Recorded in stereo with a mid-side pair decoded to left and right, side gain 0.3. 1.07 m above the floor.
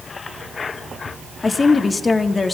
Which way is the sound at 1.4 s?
45° left.